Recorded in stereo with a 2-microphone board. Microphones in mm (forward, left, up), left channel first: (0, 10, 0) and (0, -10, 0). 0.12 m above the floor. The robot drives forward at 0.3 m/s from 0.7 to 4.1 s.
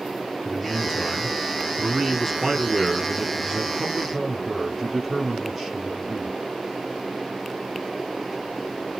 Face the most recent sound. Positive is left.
turn(degrees=-5)  # may be behind; listen again after turning